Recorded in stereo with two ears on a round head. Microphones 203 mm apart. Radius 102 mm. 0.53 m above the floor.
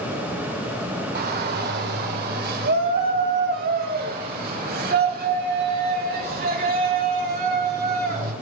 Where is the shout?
45° right (ahead or behind), 2 m; by 8.3 s 40° right (ahead or behind), 6 m.